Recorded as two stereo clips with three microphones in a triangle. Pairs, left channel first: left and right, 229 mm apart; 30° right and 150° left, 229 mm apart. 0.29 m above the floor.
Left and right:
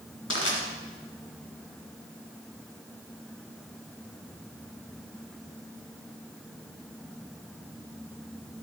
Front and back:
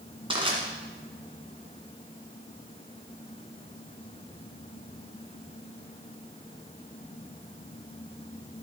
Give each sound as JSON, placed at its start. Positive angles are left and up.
{"t": 0.3, "sound": "crushing", "azimuth_deg": 85, "distance_m": 1.7}